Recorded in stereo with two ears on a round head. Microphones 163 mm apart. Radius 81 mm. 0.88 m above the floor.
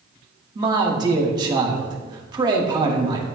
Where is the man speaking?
25° right (ahead or behind), 1.2 m.